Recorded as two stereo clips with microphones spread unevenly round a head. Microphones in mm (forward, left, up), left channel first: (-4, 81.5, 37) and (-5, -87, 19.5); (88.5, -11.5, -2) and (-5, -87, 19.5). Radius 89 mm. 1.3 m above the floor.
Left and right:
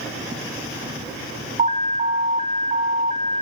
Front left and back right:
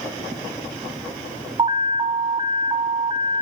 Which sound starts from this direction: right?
An alarm, at 1.6 s.